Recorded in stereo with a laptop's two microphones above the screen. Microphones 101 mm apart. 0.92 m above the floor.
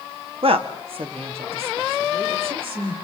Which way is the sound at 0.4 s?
65° right (ahead or behind).